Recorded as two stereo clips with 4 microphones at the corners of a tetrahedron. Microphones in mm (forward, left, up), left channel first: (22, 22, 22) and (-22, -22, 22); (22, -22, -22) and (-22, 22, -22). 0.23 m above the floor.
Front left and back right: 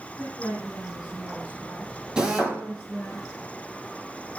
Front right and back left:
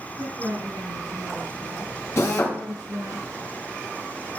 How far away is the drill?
About 1.8 m.